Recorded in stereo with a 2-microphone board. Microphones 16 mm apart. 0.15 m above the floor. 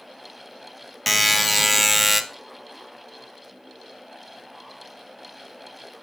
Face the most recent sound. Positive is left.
turn(degrees=-5)  # may be behind; listen again after turning